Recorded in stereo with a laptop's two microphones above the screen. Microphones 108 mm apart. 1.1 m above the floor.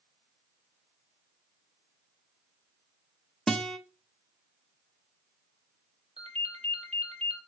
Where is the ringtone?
80° right, 2 m.